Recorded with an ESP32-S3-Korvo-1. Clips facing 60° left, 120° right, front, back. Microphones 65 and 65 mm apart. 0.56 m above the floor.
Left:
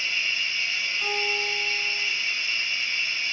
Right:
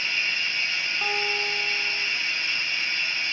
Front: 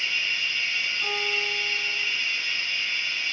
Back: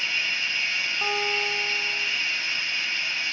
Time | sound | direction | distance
0.0 | running water | 160° right | 2 m
1.0 | a guitar | 170° right | 1.9 m